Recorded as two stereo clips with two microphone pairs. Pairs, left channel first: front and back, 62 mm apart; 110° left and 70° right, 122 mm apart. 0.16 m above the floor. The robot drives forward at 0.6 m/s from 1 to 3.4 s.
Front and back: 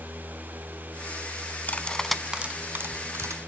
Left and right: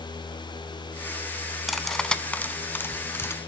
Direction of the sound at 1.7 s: 15° left.